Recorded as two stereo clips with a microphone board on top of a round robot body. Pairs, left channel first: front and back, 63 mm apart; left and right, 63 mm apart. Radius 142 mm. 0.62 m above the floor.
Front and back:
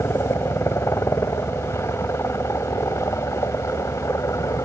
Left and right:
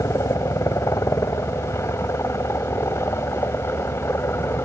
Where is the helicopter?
50° left; by 4.7 s 40° left.